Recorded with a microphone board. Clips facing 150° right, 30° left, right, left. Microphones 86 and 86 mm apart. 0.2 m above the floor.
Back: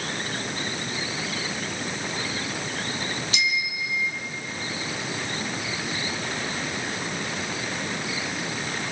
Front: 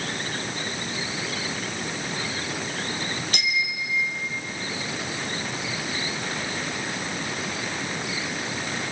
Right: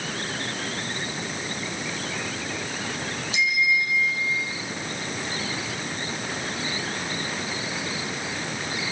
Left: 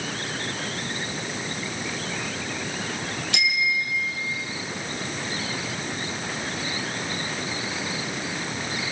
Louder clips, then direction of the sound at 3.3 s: Even, right 3 dB; 65° left.